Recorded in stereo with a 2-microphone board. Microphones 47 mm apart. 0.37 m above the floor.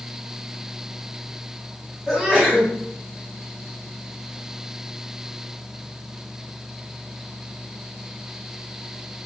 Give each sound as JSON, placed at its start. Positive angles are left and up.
{"t": 2.1, "sound": "a sneeze", "side_deg": -10, "distance_m": 1.4}